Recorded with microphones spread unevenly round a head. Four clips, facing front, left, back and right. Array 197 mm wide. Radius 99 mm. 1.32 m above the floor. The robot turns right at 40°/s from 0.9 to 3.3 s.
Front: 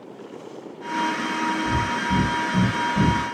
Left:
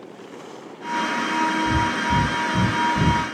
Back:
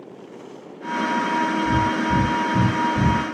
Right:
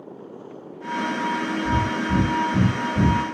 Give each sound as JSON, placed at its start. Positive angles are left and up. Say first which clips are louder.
{"t": 1.6, "sound": "breathing", "louder": "left 2 dB, back 3 dB", "azimuth_deg": -80, "distance_m": 1.7}